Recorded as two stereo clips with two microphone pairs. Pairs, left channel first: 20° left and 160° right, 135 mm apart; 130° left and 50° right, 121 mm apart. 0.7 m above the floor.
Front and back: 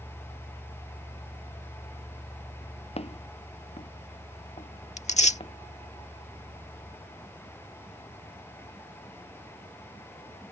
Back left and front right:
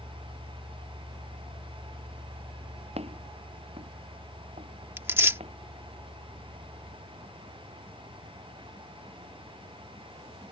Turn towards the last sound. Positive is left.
turn(degrees=15)